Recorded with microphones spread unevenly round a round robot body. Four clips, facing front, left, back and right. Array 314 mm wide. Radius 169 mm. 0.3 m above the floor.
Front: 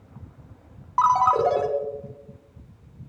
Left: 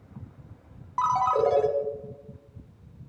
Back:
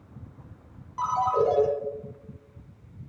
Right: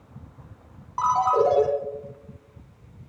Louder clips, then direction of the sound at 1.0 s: Right 3 dB, front 6 dB; 10° right.